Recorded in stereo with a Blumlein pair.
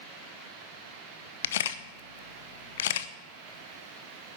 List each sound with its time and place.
1.4 s a camera shutter: 60° left, 0.7 m